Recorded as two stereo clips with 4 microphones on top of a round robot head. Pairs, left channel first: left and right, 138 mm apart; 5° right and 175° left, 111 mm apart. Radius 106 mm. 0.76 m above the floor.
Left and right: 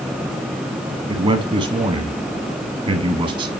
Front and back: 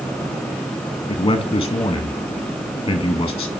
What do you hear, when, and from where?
1.1 s a man speaking: 50° right, 1.1 m